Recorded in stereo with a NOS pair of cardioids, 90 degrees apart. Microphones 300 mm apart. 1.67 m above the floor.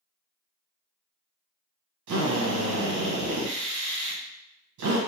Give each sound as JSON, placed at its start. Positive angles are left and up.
{"t": 2.1, "sound": "a drill", "azimuth_deg": -70, "distance_m": 1.8}